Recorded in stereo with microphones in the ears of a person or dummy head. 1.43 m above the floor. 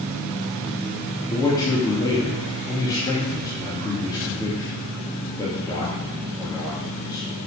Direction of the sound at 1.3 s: 15° left (ahead or behind).